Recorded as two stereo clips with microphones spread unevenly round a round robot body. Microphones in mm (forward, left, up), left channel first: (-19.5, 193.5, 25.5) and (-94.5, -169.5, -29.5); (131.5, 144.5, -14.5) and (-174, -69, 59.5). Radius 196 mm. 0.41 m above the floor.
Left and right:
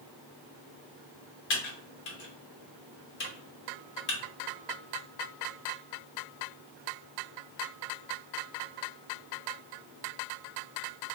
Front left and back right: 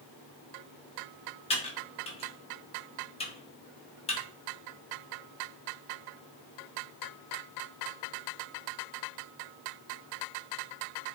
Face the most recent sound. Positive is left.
turn(degrees=40)